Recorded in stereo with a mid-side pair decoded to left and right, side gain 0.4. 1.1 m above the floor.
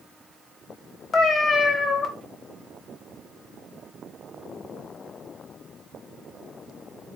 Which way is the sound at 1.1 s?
55° left.